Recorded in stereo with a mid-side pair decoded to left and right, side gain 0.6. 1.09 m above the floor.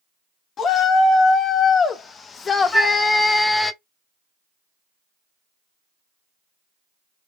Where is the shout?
45° left, 2 m; by 3.7 s 5° left, 0.7 m.